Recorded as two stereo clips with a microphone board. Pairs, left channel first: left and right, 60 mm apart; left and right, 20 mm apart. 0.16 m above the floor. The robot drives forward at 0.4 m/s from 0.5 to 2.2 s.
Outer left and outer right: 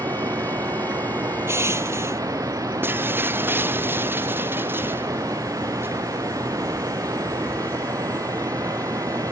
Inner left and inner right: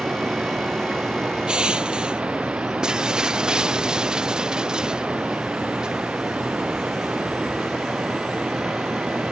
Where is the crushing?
50° right (ahead or behind).